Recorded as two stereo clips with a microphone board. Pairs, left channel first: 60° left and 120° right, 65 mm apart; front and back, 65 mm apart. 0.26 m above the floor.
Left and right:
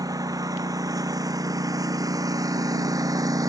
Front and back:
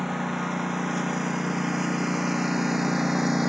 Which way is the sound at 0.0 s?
95° right.